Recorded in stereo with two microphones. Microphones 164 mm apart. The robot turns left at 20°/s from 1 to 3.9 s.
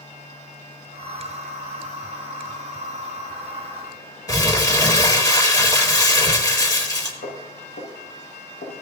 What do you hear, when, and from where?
4.3 s crumpling: 20° left (ahead or behind), 1.9 m
7.2 s footsteps: 80° left, 6 m; by 8.7 s 70° left (ahead or behind), 5 m